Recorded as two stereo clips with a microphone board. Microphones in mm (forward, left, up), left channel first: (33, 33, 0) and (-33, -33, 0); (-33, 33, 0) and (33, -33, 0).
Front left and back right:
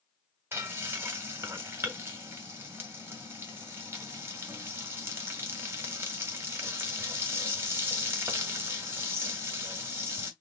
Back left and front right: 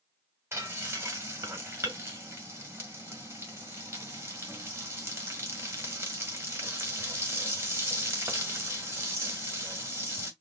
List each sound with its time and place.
0.5 s frying: 90° right, 1.8 m